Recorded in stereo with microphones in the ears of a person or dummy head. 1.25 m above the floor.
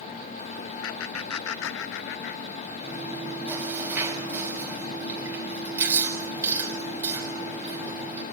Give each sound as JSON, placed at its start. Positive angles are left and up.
{"t": 0.8, "sound": "laughter", "side_deg": 75, "distance_m": 1.1}
{"t": 2.8, "sound": "chewing", "side_deg": -10, "distance_m": 6.5}